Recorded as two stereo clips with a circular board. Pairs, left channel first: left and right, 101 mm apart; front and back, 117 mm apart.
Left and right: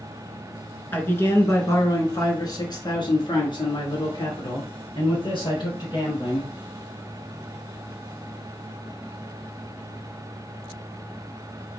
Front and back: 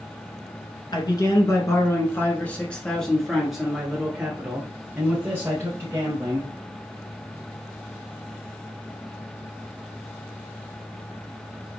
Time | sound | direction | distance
0.9 | a man speaking | 30° left | 1.6 m